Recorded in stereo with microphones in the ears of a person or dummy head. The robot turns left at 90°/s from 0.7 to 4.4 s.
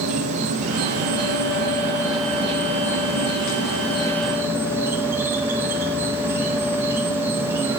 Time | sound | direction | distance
0.0 | an insect | 45° right | 0.9 m